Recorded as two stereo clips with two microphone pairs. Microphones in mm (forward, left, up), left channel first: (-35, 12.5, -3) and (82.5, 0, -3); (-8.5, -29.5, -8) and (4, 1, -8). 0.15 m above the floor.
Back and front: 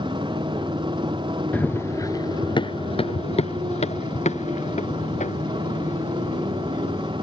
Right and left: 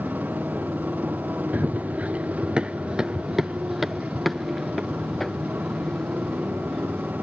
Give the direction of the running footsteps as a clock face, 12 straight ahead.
9 o'clock.